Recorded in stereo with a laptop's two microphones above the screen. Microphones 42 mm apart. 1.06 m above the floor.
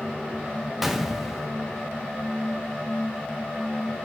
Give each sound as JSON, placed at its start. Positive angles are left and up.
{"t": 0.8, "sound": "a gunshot", "side_deg": -5, "distance_m": 1.1}